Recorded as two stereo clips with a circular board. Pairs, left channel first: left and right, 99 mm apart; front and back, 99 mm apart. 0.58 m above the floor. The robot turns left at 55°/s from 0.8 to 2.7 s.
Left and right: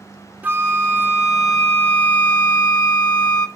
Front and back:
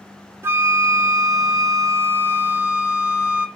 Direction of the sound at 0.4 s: 145° right.